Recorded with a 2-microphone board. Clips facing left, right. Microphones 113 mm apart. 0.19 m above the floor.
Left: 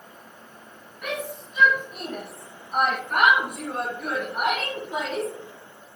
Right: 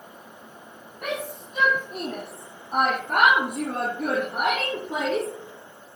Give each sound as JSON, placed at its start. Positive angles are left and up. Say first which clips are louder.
{"t": 1.0, "sound": "a shout", "louder": "right 1 dB", "side_deg": -45, "distance_m": 5.5}